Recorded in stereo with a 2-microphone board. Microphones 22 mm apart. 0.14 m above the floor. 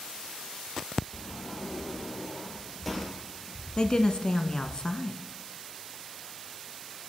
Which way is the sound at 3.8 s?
35° left (ahead or behind).